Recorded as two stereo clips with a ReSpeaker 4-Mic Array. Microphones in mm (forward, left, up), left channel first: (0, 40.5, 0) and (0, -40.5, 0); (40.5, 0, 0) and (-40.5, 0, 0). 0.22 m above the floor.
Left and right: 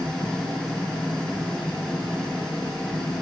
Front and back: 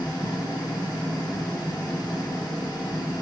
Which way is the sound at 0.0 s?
10° left.